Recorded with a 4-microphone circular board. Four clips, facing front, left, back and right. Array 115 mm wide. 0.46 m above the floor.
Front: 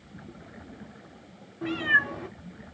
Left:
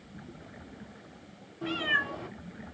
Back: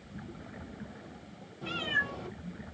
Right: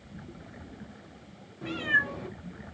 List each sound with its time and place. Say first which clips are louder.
1.6 s a cat meowing: right 1 dB, front 8 dB; 5° left, 1.3 m